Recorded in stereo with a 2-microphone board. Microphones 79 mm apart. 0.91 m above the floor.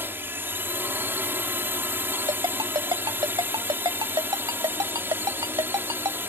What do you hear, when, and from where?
0.0 s a drone: 30° right (ahead or behind)
2.3 s a ringtone: 75° right (ahead or behind)